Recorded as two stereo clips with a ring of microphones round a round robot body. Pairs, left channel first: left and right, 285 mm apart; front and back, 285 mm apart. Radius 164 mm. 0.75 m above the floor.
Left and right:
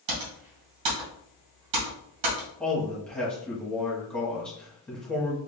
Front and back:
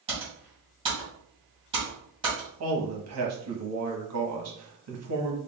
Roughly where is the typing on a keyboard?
Right.